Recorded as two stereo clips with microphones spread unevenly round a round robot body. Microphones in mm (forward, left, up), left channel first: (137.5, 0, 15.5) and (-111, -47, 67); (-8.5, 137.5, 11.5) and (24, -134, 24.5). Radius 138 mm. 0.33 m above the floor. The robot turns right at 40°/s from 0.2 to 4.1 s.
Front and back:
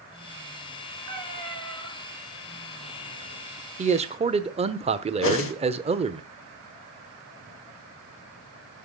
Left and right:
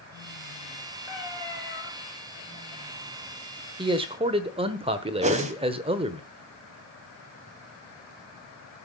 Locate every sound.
1.1 s a cat meowing: 170° right, 5 m; by 1.9 s 140° right, 5 m
3.8 s a man speaking: 125° right, 1.1 m; by 6.2 s 115° right, 1.1 m
5.2 s a whoosh: 15° right, 1.6 m